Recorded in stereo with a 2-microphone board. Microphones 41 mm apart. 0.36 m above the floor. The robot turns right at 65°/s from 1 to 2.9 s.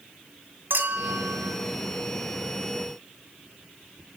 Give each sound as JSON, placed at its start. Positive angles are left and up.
{"t": 0.7, "sound": "a clink", "azimuth_deg": -100, "distance_m": 2.0}